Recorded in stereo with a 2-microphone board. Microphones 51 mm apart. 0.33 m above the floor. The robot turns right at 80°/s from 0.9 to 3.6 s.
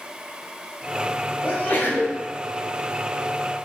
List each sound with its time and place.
1.4 s a sneeze: 85° left, 1.4 m; by 2.2 s 145° left, 1.4 m